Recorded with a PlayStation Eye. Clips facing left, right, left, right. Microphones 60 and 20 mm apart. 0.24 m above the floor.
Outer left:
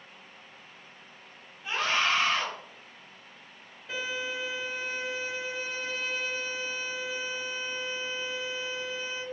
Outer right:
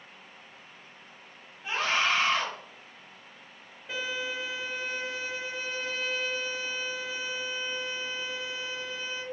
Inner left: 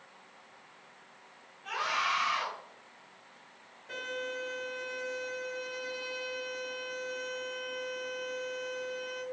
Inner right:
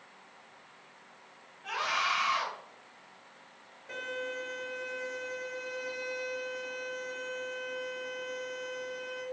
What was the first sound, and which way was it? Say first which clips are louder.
A scream: even, inner right 1 dB; 25° right (ahead or behind).